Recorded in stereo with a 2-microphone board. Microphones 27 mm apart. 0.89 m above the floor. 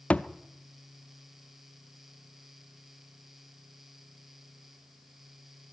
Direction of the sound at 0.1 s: 70° left (ahead or behind).